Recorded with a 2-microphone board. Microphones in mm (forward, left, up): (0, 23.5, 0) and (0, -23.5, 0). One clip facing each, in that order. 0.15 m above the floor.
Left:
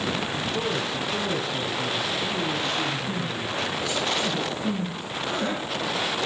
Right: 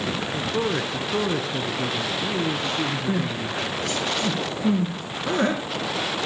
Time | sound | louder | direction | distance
0.3 | a man speaking | right 2 dB | 25° right (ahead or behind) | 1.9 m
3.1 | crying | right 3 dB | 55° right (ahead or behind) | 5 m